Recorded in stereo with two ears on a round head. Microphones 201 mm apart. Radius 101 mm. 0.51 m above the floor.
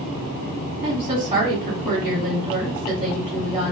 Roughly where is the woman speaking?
Right.